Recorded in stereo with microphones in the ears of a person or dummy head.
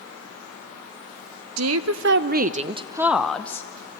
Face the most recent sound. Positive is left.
turn(degrees=20)  # may be behind; listen again after turning